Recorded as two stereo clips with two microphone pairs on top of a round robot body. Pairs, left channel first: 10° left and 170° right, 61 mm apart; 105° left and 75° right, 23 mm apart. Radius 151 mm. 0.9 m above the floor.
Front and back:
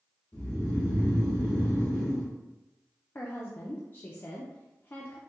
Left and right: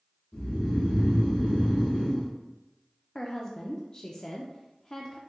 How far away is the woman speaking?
About 0.5 m.